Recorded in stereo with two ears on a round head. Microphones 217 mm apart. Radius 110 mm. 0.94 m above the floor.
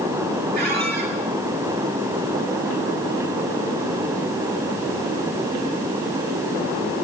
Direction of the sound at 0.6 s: 45° right (ahead or behind).